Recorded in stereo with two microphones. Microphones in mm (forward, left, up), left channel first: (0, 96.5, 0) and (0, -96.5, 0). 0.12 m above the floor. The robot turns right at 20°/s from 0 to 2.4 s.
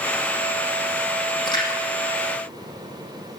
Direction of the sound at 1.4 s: 25° left (ahead or behind).